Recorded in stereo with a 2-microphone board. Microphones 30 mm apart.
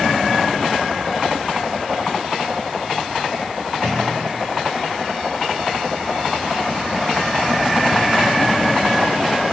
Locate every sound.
3.8 s a clunk: 70° right (ahead or behind), 7 m